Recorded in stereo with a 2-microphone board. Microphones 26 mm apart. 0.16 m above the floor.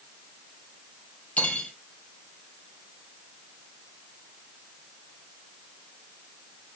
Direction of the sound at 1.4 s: 75° left (ahead or behind).